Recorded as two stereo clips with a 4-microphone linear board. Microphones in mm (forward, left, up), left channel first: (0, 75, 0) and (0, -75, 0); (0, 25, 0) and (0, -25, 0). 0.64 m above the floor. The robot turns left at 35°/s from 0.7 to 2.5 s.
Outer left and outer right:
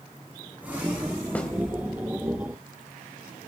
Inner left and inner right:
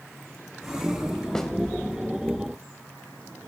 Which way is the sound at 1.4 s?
10° left (ahead or behind).